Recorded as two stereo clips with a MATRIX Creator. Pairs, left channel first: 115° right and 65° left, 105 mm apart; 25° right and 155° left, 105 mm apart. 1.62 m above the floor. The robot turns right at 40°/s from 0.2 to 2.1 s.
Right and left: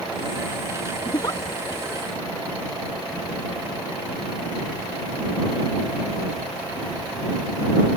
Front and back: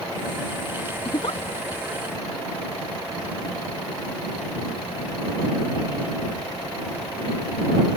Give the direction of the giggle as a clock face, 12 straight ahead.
2 o'clock.